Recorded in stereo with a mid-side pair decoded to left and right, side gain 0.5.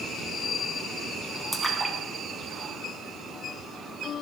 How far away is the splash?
About 1.2 m.